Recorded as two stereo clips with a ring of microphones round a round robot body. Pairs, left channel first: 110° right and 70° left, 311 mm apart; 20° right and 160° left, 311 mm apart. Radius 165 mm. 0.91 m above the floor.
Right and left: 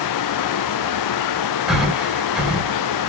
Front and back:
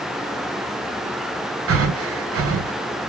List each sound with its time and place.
1.7 s breathing: 155° left, 0.7 m